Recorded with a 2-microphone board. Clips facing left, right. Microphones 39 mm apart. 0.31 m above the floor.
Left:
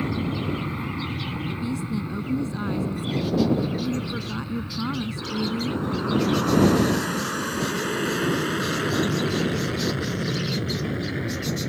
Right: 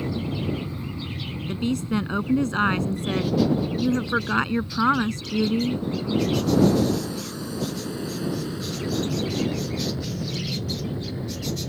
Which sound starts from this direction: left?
An aircraft, at 0.0 s.